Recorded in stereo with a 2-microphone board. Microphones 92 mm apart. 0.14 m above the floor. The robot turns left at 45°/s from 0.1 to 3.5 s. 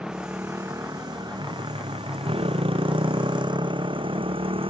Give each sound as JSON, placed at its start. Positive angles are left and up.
{"t": 0.0, "sound": "a motorcycle", "side_deg": -10}